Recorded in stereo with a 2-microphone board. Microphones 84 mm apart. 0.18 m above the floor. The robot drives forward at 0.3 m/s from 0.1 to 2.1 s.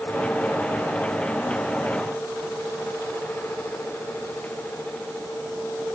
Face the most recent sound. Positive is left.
No sound to turn to.